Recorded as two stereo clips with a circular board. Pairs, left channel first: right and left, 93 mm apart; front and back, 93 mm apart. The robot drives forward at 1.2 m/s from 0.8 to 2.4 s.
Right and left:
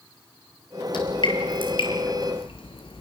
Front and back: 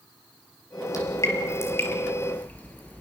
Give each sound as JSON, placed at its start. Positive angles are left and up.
{"t": 0.9, "sound": "dripping", "azimuth_deg": -50, "distance_m": 5.0}